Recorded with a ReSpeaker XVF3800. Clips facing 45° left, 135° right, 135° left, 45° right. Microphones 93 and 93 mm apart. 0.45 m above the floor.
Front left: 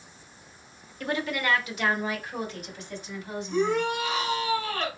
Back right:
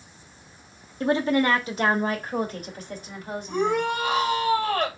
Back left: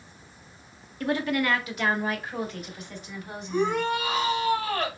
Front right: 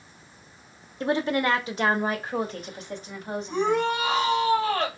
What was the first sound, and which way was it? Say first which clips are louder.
A woman speaking: back right 7 dB, front right 2 dB; 90° right.